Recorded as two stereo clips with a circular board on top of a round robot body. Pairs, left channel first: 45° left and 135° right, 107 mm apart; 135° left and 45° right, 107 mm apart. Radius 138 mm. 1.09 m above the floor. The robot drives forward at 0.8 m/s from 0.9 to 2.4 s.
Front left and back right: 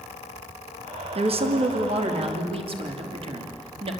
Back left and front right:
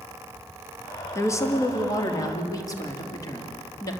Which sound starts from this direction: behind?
A woman speaking, at 1.1 s.